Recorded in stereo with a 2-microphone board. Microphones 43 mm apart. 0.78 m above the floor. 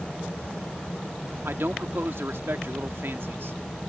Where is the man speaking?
65° right (ahead or behind).